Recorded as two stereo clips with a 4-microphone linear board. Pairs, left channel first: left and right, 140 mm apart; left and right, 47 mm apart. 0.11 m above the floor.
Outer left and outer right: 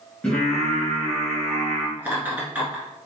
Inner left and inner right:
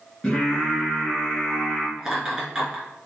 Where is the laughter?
15° right (ahead or behind), 1.6 m.